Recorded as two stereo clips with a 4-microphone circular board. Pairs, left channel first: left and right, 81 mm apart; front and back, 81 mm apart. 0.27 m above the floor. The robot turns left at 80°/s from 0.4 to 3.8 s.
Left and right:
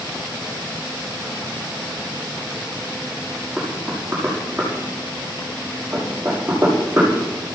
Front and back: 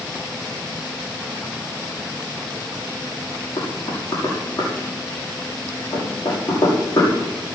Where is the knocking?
5° left, 7 m; by 7.1 s 15° right, 7 m.